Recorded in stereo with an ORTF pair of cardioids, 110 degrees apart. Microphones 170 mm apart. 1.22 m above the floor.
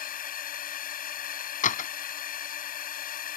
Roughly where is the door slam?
Ahead left.